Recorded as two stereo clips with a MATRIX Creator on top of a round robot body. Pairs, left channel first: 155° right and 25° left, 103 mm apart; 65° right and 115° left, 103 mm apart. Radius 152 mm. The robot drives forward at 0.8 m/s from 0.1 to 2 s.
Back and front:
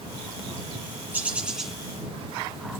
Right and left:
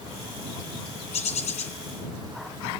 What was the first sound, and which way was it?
A bird, 50° right.